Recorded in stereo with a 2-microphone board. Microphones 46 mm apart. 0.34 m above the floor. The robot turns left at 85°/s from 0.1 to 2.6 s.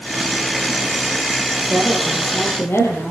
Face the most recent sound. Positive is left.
turn(degrees=120)